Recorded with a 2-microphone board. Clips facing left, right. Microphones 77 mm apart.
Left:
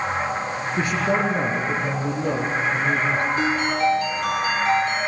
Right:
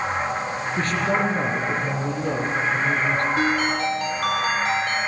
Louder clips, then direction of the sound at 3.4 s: Even; 65° right (ahead or behind).